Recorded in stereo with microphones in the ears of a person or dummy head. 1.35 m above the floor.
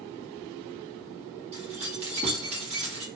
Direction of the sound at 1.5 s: 35° right (ahead or behind).